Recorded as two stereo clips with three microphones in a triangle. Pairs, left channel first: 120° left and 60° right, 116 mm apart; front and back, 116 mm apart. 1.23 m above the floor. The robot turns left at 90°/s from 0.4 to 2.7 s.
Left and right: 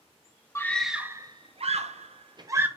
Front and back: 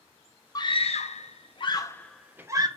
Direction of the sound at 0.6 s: 55° left.